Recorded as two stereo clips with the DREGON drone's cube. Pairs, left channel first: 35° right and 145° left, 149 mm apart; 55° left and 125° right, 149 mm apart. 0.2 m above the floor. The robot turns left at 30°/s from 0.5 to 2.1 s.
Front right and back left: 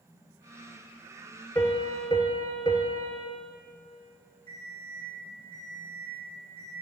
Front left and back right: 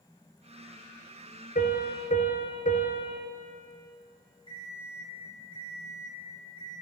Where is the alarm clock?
175° right, 4 m.